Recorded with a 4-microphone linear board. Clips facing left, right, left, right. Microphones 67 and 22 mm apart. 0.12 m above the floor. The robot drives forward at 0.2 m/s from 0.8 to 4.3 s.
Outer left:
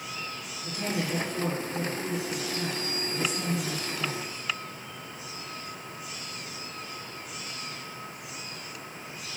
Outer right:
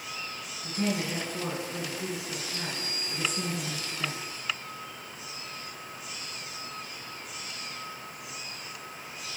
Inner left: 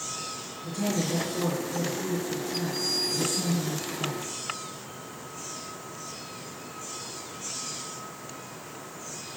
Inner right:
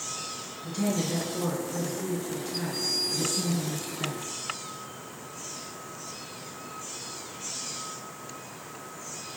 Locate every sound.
0.6 s a woman speaking: 35° right (ahead or behind), 2.0 m